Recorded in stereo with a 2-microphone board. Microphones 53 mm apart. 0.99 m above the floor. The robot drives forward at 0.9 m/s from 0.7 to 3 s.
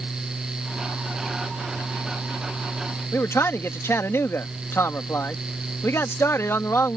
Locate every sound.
3.1 s a man speaking: 55° left (ahead or behind)